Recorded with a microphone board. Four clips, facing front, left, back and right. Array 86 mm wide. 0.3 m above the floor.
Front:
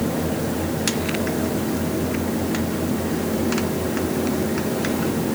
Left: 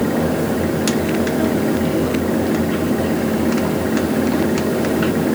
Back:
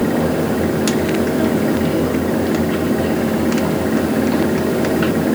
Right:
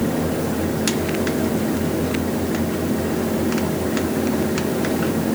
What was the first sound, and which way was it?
Only background noise.